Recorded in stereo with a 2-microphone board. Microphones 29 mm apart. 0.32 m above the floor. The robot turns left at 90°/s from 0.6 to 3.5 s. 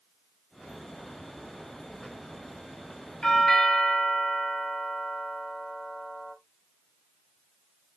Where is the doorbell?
25° left (ahead or behind), 2 m; by 6.3 s 15° left (ahead or behind), 2 m.